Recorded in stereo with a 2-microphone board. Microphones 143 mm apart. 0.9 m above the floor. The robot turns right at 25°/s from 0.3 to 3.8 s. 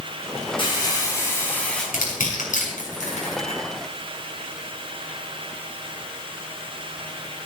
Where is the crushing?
85° left, 6.5 m; by 3.6 s 45° left (ahead or behind), 6.5 m.